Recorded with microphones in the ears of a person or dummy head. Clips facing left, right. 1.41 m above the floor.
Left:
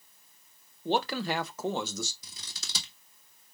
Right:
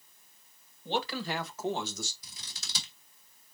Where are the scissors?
75° left (ahead or behind), 1.3 m.